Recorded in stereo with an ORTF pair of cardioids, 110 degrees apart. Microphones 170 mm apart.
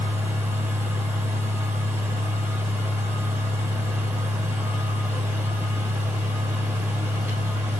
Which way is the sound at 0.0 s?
10° right.